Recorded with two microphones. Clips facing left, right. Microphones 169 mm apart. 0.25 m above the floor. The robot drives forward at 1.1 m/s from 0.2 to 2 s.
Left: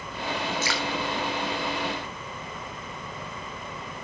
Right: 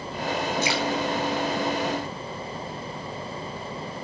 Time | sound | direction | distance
0.6 | dripping | 15° right (ahead or behind) | 3 m